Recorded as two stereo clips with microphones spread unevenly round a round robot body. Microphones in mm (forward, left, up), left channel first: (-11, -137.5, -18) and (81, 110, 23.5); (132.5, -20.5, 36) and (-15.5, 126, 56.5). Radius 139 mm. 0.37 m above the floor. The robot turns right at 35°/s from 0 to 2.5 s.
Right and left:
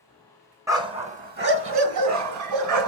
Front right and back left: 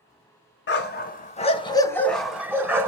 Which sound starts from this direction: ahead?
A dog barking, at 0.7 s.